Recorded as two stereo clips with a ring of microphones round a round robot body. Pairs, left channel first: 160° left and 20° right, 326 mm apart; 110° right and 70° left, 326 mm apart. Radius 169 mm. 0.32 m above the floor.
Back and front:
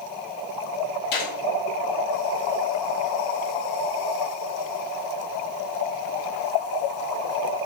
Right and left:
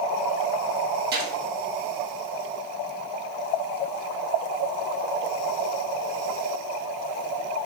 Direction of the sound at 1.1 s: 130° left.